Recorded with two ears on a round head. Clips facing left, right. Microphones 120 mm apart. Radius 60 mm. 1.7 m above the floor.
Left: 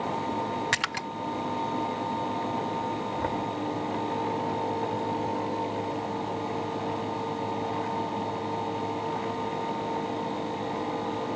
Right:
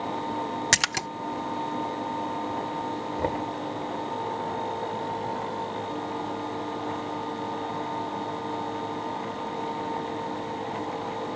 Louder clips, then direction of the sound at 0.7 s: Right 2 dB; 45° right (ahead or behind).